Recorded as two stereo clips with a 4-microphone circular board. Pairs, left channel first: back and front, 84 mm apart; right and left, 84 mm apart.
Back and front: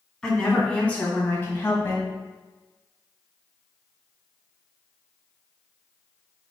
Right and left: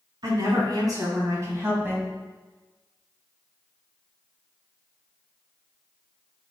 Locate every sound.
0.2 s a woman speaking: 100° left, 1.9 m; by 2.0 s 145° left, 1.4 m